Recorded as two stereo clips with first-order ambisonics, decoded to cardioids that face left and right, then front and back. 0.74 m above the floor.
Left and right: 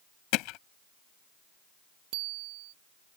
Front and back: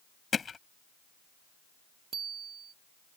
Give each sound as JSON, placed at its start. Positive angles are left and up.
{"t": 0.3, "sound": "hammering", "azimuth_deg": 70}
{"t": 2.1, "sound": "a bicycle bell", "azimuth_deg": -115}